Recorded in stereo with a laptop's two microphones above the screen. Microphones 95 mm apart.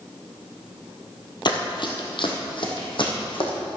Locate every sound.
1.4 s running footsteps: 55° left (ahead or behind), 1.6 m; by 3.5 s 60° left (ahead or behind), 3.5 m